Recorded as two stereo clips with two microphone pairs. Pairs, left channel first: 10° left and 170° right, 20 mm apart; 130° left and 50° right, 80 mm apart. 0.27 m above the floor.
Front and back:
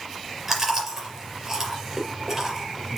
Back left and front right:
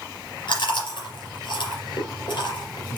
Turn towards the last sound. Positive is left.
turn(degrees=130)